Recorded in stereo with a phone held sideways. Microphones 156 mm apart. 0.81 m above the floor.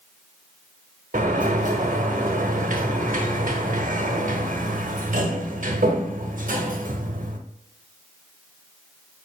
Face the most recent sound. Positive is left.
turn(degrees=-65)  # may be behind; listen again after turning